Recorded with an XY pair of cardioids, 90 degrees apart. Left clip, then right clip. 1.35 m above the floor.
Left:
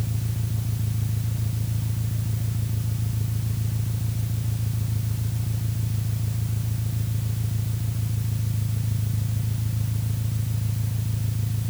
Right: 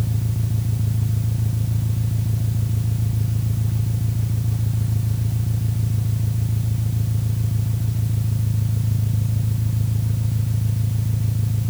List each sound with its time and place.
0.0 s an engine running: 35° right